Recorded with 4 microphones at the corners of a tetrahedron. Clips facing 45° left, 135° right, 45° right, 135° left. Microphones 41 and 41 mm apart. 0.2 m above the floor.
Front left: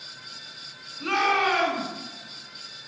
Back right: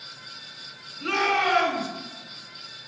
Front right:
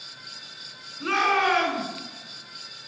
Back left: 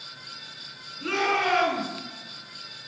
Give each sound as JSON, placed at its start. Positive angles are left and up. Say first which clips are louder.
{"t": 1.0, "sound": "a shout", "louder": "even, front right 3 dB", "azimuth_deg": -20, "distance_m": 2.5}